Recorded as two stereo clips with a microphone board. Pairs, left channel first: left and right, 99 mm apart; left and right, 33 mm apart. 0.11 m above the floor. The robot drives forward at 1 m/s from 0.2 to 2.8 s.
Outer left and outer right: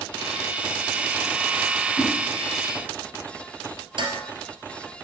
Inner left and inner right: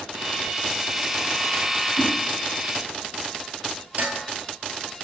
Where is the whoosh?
Centre (ahead or behind), 3 m.